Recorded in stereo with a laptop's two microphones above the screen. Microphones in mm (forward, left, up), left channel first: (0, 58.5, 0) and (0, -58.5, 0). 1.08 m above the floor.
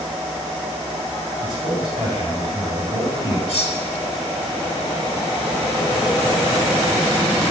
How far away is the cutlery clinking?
About 2 m.